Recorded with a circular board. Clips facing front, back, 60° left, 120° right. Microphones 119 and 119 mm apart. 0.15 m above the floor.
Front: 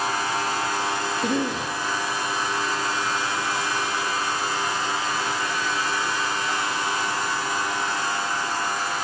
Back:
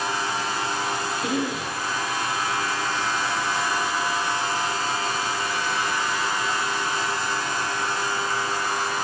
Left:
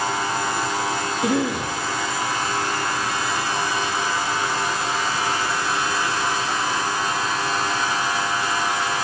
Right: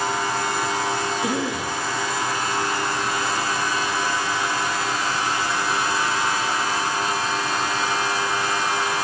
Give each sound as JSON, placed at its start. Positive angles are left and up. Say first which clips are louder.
{"t": 1.2, "sound": "a cough", "louder": "front 2 dB, left 3 dB", "azimuth_deg": 40, "distance_m": 5.0}